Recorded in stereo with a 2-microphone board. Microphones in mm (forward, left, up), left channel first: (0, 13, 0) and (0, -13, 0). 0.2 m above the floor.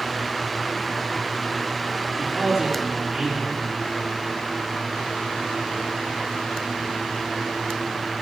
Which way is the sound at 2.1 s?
10° right (ahead or behind).